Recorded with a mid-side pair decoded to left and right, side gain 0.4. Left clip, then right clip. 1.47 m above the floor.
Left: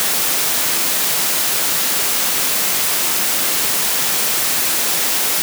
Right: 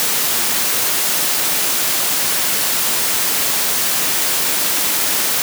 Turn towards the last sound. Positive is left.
No sound to turn to.